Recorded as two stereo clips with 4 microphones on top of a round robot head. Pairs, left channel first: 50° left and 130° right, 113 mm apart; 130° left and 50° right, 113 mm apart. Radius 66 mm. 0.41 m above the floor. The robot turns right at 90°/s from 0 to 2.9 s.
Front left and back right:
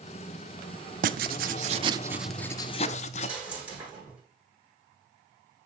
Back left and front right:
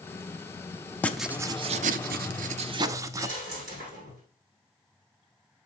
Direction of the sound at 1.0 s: 155° right.